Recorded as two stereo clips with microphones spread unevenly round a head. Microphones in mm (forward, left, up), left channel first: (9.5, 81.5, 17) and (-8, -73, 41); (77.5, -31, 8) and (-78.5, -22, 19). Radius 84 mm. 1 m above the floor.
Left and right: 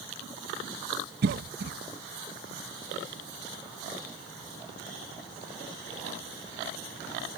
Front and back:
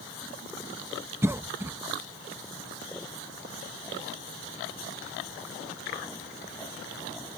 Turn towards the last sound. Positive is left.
turn(degrees=-110)